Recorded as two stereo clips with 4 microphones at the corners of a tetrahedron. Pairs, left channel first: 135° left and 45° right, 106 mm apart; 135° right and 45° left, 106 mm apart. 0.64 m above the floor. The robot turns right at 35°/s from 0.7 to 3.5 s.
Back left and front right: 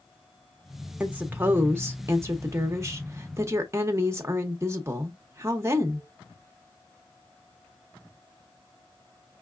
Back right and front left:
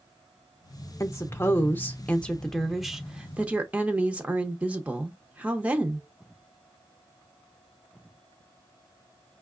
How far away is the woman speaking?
About 0.7 m.